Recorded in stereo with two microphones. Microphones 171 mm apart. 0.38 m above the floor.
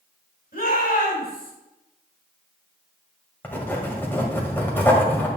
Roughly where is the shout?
Left.